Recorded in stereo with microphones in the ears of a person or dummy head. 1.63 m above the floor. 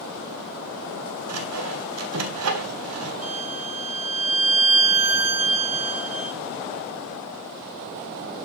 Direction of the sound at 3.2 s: 35° right (ahead or behind).